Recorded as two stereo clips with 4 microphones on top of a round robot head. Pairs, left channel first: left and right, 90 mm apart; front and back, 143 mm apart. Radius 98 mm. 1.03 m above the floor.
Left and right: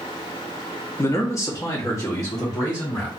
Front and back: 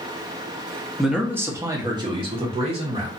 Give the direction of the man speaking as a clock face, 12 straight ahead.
9 o'clock.